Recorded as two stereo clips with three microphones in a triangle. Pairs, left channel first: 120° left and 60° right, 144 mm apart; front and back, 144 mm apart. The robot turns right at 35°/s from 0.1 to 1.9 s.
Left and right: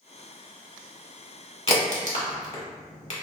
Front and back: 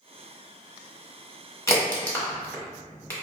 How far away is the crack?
About 1.0 m.